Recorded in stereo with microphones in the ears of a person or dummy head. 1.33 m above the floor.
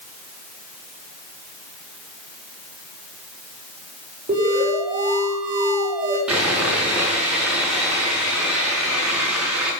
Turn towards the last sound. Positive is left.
turn(degrees=-5)  # may be behind; listen again after turning